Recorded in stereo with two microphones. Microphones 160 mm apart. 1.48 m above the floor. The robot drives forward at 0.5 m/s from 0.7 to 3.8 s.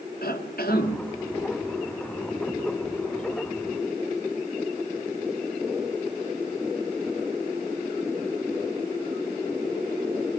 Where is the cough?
70° left (ahead or behind), 2.5 m; by 1.0 s 75° left (ahead or behind), 2.5 m.